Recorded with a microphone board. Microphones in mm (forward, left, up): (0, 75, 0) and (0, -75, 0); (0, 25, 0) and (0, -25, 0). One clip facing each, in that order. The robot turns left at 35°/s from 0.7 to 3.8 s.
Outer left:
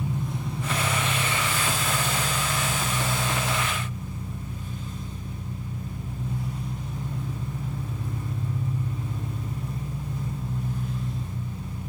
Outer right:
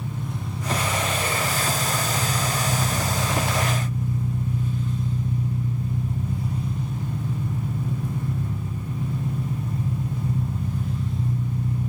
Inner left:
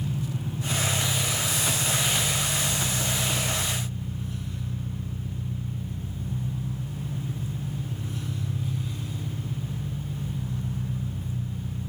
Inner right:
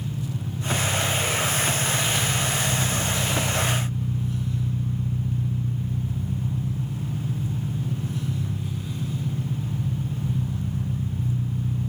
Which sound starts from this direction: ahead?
An engine running, at 0.0 s.